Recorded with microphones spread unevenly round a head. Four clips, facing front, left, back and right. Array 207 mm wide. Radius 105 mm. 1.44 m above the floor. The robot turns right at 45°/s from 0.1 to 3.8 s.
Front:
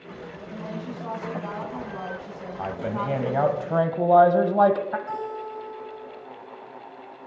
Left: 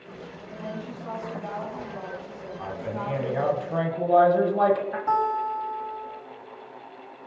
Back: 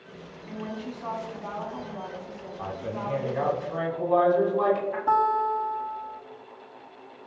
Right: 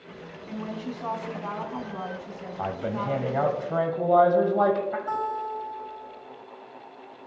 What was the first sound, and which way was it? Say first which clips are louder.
A woman speaking: right 2 dB, even; 120° right.